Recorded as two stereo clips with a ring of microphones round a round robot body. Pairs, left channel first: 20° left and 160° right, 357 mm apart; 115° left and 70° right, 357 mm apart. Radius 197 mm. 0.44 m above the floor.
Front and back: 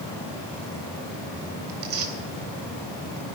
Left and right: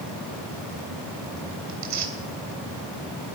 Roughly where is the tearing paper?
Right.